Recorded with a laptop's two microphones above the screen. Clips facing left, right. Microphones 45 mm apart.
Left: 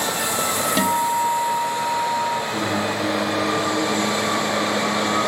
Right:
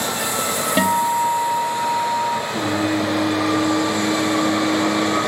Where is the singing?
30° left (ahead or behind), 6.5 m.